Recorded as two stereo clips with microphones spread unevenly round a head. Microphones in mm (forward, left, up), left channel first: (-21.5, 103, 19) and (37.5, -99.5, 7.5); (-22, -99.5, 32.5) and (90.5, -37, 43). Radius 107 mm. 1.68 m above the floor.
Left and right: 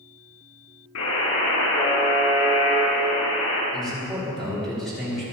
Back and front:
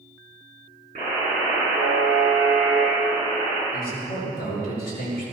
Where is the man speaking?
165° right, 6 m.